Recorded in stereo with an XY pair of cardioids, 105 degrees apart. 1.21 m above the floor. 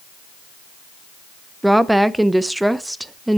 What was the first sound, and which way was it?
A woman speaking, 5° right.